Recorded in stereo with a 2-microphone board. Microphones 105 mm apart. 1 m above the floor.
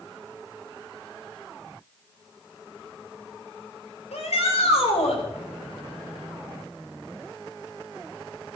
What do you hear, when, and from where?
4.1 s a shout: 85° left, 3.5 m; by 5.2 s 80° left, 4 m